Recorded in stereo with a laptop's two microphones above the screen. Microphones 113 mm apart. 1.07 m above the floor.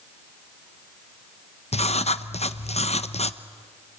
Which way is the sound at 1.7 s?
65° left (ahead or behind).